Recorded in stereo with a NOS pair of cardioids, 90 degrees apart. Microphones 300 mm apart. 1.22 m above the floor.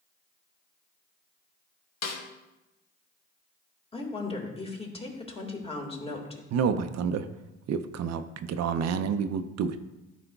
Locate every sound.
2.0 s a snare drum: 65° left, 1.3 m
3.9 s a woman speaking: 20° left, 1.8 m
6.5 s a man speaking: 60° right, 0.5 m